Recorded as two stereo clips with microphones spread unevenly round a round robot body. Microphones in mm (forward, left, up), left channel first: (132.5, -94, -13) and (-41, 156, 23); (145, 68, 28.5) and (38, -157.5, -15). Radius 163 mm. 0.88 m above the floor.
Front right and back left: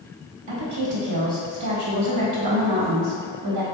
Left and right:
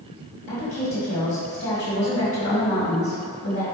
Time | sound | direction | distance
0.5 | a woman speaking | 125° left | 1.4 m